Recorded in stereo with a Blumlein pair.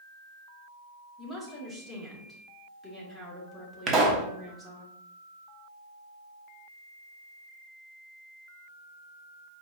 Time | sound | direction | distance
1.2 | a woman speaking | straight ahead | 1.6 m
3.9 | a pop | 25° right | 0.9 m